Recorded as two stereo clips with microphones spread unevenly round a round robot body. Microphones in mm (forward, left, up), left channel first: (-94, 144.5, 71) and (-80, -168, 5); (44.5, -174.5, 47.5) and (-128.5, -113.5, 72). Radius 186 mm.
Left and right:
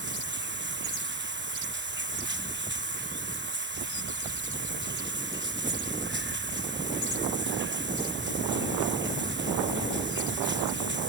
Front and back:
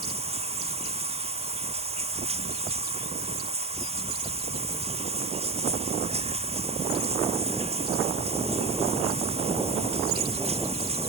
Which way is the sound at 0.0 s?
145° right.